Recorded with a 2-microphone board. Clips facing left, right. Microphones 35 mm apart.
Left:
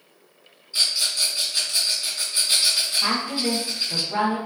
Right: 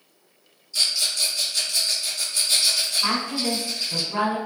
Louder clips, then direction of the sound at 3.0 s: Even; 65° left (ahead or behind).